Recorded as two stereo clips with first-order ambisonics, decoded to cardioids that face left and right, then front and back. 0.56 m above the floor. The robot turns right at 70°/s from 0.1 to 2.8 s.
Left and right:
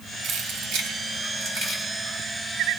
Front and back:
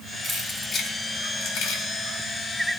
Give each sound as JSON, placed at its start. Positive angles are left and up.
{"t": 0.2, "sound": "keys jangling", "azimuth_deg": -115, "distance_m": 1.8}